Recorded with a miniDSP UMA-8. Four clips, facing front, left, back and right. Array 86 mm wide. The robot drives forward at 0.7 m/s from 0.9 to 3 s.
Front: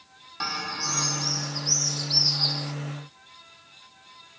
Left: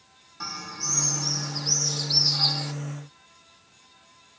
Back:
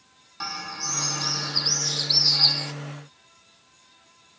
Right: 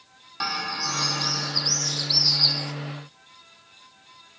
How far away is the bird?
About 0.5 m.